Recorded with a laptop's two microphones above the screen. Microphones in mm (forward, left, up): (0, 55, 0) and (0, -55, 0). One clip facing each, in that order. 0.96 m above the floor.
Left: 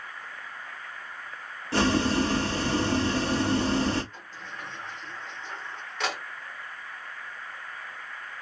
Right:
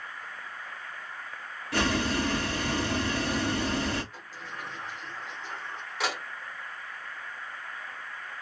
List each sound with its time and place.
1.7 s boiling: 30° left (ahead or behind), 0.6 m
4.1 s a sliding door: 5° right (ahead or behind), 0.7 m